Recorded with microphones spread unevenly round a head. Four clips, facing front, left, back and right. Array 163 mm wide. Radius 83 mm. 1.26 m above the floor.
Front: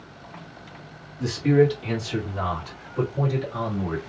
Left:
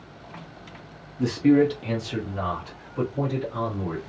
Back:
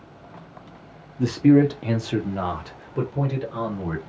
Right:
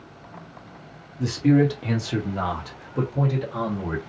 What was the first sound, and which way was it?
A man speaking, 165° left.